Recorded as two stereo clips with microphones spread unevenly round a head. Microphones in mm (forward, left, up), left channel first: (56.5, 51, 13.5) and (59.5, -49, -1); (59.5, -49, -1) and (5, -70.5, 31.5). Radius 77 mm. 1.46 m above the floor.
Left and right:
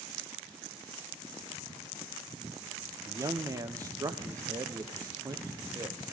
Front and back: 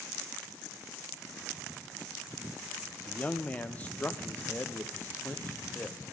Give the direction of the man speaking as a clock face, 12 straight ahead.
1 o'clock.